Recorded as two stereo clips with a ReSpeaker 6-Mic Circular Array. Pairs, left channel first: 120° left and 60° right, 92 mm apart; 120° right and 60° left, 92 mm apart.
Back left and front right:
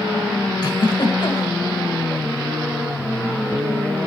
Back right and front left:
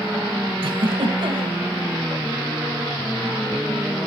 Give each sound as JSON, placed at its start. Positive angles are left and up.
{"t": 0.6, "sound": "a giggle", "azimuth_deg": 75, "distance_m": 1.7}